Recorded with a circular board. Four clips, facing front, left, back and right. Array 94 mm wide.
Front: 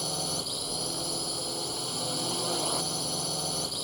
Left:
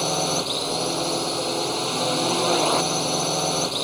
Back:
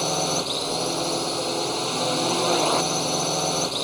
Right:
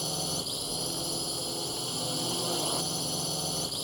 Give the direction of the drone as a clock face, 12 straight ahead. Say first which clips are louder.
Left 12 dB, back 10 dB; 8 o'clock.